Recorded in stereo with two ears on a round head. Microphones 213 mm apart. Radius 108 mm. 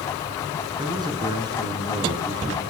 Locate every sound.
0.8 s a man speaking: 20° right (ahead or behind), 5.5 m